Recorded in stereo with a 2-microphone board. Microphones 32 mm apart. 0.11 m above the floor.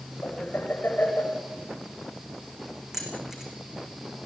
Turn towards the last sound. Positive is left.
turn(degrees=-15)  # may be behind; listen again after turning